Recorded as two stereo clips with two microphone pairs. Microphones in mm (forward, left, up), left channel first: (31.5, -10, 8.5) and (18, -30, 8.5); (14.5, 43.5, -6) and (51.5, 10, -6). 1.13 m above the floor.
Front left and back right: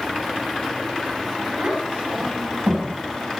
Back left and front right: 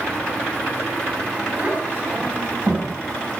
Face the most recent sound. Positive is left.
turn(degrees=-100)